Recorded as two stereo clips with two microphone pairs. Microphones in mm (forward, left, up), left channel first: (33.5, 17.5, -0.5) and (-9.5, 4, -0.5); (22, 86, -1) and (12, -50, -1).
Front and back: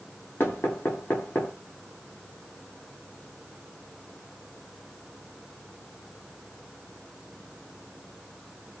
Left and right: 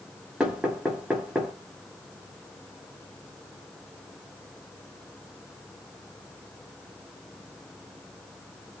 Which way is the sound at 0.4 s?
10° right.